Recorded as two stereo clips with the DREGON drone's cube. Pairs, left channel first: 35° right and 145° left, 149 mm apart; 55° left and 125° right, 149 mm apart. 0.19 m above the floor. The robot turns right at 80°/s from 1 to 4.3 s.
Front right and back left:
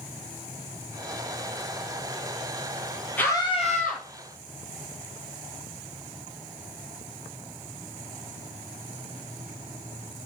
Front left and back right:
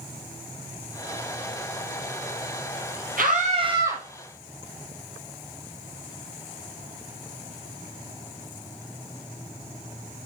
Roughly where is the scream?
Behind right.